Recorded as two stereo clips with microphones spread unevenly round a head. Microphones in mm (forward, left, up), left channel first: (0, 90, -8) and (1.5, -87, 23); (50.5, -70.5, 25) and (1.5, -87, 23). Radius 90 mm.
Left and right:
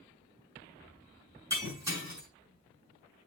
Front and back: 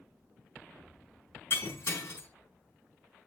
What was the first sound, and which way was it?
Breaking glass, 15° right.